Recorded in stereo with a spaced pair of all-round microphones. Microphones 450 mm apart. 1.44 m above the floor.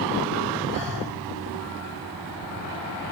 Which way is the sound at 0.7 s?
45° left (ahead or behind).